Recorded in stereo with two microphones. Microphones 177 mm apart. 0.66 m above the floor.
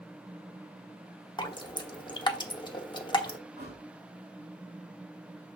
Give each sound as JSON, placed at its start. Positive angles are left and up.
{"t": 1.4, "sound": "dripping", "side_deg": 25, "distance_m": 0.9}
{"t": 3.6, "sound": "a thud", "side_deg": -70, "distance_m": 5.5}